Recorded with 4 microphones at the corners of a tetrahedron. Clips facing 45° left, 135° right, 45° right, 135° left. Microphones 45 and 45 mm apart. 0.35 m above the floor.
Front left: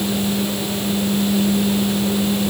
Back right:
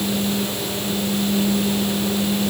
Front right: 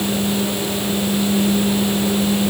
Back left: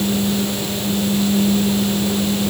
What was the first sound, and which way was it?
Only background noise.